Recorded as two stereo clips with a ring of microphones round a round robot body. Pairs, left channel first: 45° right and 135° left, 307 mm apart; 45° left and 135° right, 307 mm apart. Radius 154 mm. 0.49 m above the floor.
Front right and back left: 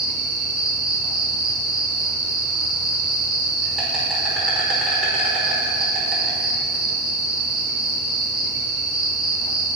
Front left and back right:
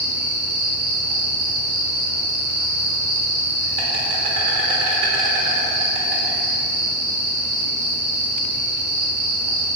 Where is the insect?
140° right, 2.5 m.